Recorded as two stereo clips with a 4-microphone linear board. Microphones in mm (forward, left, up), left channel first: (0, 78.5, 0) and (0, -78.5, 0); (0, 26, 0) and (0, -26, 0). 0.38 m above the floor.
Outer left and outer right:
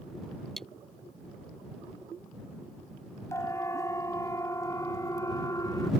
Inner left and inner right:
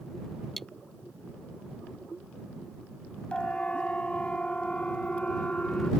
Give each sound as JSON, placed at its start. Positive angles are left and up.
{"t": 0.6, "sound": "cutlery clinking", "side_deg": 0}
{"t": 3.3, "sound": "a siren", "side_deg": 20}